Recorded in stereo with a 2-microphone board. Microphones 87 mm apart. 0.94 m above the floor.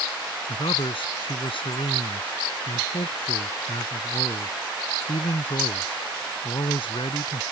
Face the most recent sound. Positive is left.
turn(degrees=80)